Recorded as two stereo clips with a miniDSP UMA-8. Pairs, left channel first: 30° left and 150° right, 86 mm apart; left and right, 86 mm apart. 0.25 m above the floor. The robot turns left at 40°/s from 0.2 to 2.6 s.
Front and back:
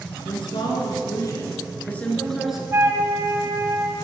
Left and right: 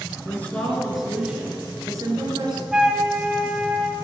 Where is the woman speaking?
25° left, 3.5 m; by 2.6 s 70° right, 3.5 m.